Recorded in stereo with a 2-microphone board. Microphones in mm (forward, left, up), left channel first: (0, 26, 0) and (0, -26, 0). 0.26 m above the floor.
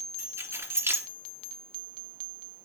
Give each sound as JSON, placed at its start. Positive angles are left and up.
{"t": 0.2, "sound": "keys jangling", "side_deg": -65, "distance_m": 2.0}